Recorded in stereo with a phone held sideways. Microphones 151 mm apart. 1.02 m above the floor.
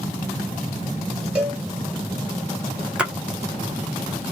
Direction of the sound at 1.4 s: 10° right (ahead or behind).